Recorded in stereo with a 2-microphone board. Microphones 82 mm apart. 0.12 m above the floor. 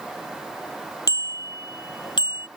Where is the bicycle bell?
50° left (ahead or behind); by 2.5 s 70° left (ahead or behind).